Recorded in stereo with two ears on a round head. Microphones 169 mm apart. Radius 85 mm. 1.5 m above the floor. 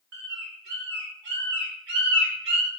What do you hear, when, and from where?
0.1 s a bird: 60° right (ahead or behind), 2 m